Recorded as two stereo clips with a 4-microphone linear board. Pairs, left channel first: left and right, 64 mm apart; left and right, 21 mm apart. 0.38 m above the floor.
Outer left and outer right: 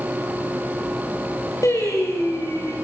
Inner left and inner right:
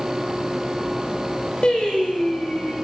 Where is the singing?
55° left (ahead or behind), 7 m.